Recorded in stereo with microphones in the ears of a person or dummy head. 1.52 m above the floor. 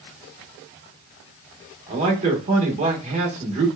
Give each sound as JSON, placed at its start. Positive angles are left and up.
{"t": 1.9, "sound": "a man speaking", "side_deg": -35, "distance_m": 1.7}